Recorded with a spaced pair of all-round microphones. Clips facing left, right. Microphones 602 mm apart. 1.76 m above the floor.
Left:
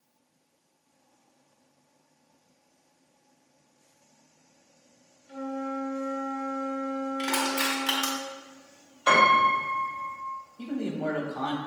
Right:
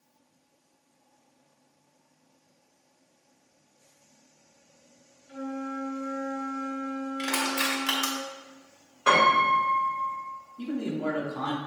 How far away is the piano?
About 3 m.